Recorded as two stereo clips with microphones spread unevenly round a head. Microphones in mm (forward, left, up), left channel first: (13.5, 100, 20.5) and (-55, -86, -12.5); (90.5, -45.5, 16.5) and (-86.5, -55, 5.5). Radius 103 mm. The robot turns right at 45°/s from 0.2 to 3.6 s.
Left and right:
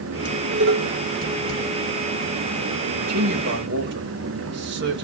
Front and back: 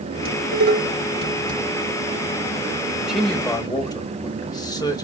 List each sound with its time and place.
0.2 s dishes clattering: 165° right, 3.5 m; by 1.6 s 105° right, 3.5 m
2.9 s a man speaking: 100° right, 3.5 m; by 5.0 s 65° right, 3.5 m